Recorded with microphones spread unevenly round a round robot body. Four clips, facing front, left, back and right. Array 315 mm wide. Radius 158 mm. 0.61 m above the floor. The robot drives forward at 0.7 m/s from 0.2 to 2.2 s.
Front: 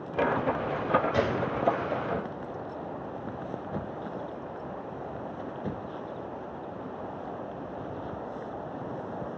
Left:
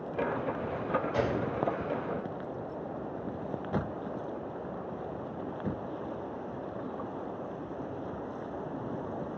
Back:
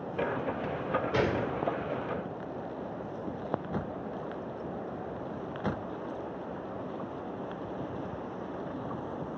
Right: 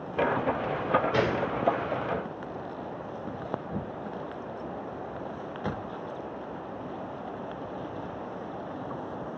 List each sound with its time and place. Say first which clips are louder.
1.1 s a gunshot: right 3 dB, front 1 dB; 135° right, 1.1 m; by 1.5 s 145° right, 1.3 m